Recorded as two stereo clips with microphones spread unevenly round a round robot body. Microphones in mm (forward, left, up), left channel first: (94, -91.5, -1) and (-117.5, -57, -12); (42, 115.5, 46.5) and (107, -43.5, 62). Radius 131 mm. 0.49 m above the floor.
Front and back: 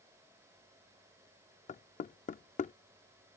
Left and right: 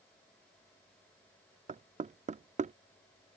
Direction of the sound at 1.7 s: 45° right.